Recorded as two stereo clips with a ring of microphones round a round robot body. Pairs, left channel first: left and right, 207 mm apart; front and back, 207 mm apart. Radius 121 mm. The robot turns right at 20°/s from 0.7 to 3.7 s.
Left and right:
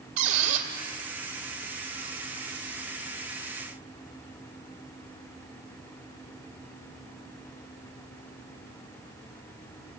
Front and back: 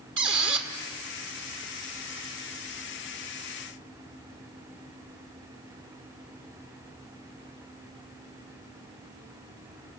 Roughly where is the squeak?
Behind right.